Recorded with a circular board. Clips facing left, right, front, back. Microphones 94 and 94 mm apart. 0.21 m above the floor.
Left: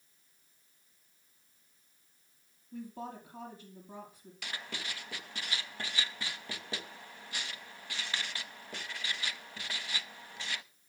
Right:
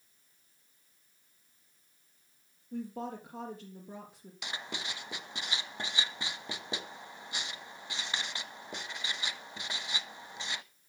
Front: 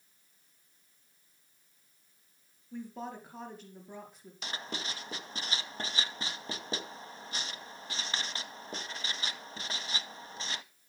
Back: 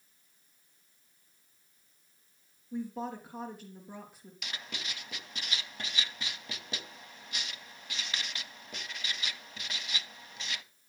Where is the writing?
30° right, 0.6 m.